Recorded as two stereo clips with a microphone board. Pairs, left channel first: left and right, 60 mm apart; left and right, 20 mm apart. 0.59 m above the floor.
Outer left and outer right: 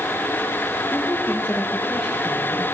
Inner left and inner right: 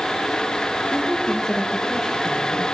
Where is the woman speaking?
30° left (ahead or behind), 3.5 m; by 2.6 s 10° right (ahead or behind), 3.5 m.